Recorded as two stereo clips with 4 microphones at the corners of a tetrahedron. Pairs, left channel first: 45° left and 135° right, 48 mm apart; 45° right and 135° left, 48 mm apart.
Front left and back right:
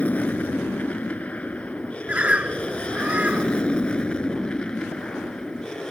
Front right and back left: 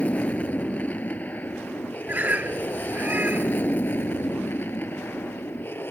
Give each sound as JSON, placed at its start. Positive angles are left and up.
{"t": 0.0, "sound": "an aircraft", "azimuth_deg": 0}
{"t": 2.1, "sound": "a bird", "azimuth_deg": 170}